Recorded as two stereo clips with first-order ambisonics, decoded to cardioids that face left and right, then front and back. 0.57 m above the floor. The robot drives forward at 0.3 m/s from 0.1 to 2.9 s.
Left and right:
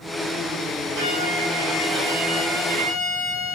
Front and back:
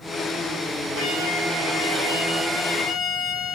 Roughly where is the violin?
Right.